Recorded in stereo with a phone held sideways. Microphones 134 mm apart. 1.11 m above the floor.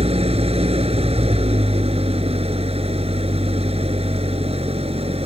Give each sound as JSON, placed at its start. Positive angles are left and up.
{"t": 0.0, "sound": "an engine running", "side_deg": -45}